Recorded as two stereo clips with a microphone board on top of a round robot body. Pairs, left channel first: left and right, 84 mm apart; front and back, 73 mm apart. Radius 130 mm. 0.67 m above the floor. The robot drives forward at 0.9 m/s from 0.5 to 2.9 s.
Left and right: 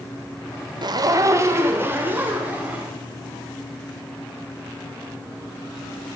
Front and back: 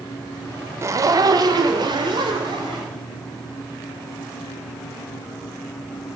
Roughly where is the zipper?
Behind right.